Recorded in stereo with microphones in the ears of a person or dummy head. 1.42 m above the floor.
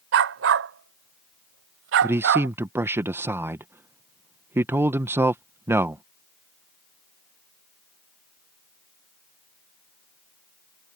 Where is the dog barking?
65° right (ahead or behind).